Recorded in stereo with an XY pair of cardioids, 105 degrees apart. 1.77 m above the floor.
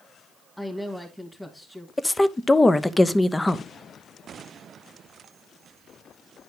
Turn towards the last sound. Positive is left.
turn(degrees=15)